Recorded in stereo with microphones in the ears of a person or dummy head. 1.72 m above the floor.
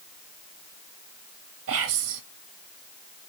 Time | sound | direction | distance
1.7 | whispering | 65° right (ahead or behind) | 0.7 m